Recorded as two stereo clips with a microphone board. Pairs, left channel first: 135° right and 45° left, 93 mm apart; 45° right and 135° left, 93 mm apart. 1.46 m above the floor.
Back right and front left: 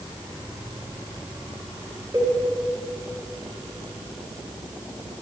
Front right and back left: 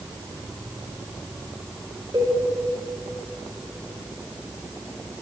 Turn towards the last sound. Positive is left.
turn(degrees=95)